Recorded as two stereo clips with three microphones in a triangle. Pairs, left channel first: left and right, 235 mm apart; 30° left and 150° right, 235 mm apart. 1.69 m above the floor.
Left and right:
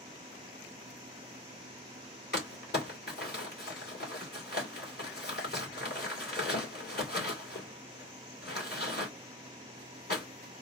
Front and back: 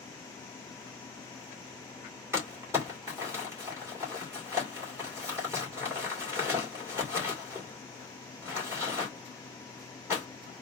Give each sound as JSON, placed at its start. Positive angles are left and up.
{"t": 2.3, "sound": "crumpling", "azimuth_deg": 135, "distance_m": 2.5}